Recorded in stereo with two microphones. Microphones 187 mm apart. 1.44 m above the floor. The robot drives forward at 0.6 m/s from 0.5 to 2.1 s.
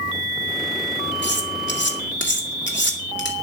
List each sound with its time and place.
1.2 s cutlery clinking: 70° left (ahead or behind), 2 m; by 3.3 s 75° left (ahead or behind), 2 m